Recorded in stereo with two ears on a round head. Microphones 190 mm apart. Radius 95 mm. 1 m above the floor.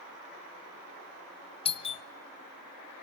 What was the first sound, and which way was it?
A doorbell, 25° left (ahead or behind).